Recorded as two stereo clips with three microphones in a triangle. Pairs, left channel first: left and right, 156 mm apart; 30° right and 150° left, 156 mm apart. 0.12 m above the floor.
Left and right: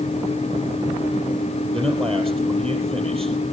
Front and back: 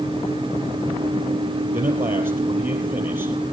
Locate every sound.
1.7 s a man speaking: 135° right, 3.5 m